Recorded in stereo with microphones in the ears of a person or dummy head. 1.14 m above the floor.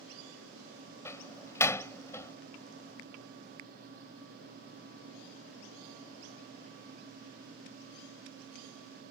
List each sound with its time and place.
1.1 s a door slam: 10° left (ahead or behind)